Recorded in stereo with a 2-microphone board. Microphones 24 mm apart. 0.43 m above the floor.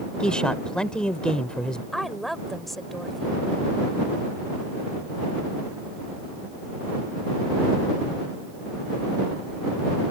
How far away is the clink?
No clink in this recording.